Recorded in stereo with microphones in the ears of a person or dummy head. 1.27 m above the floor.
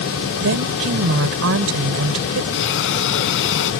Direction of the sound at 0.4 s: 70° right (ahead or behind).